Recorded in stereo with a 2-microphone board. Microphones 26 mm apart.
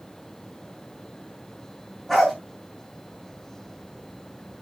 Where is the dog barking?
5° left (ahead or behind), 8 m.